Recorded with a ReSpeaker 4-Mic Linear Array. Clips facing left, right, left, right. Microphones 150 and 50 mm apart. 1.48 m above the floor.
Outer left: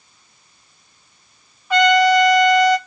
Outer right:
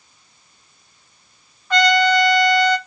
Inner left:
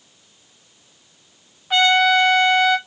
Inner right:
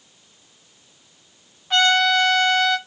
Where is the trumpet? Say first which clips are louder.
Outer left 3 dB, inner left 2 dB; 10° left (ahead or behind), 0.9 m.